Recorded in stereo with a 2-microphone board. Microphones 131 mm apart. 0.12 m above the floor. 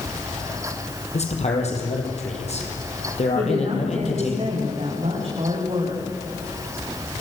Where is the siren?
No siren in this recording.